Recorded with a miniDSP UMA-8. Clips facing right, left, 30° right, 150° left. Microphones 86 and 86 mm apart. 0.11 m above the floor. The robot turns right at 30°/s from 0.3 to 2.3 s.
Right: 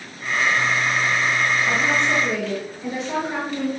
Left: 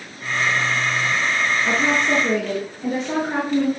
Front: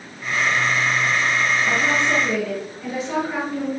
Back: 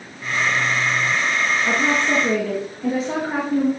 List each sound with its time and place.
1.6 s a woman speaking: 95° left, 2.5 m; by 3.7 s 115° left, 2.5 m